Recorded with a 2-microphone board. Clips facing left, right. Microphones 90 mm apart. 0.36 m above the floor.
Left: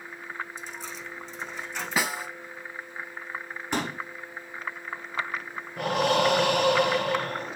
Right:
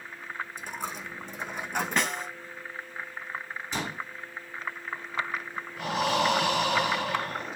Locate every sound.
0.6 s a dropped coin: 55° right (ahead or behind), 2.5 m
2.0 s a snare drum: 5° left (ahead or behind), 1.6 m
3.7 s a pop: 60° left (ahead or behind), 4.5 m
5.8 s breathing: 75° left (ahead or behind), 6 m